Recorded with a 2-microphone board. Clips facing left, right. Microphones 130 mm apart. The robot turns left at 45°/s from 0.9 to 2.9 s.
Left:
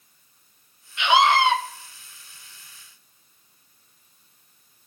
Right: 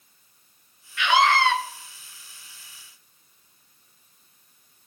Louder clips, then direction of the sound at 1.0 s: Left 2 dB; 20° left (ahead or behind).